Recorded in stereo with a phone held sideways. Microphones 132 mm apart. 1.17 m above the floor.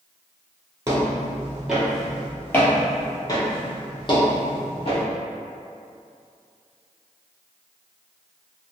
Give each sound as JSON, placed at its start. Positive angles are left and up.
{"t": 0.9, "sound": "footsteps", "side_deg": -20, "distance_m": 1.2}